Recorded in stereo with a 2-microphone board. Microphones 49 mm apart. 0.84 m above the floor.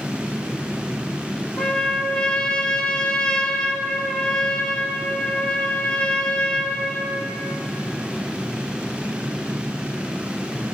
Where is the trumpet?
20° left (ahead or behind), 0.8 m.